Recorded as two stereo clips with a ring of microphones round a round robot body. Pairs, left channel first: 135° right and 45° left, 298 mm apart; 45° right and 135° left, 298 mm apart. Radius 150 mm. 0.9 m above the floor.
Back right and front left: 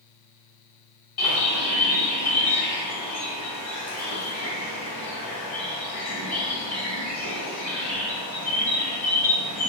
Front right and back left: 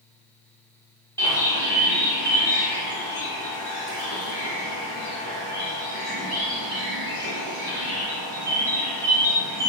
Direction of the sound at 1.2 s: 125° right.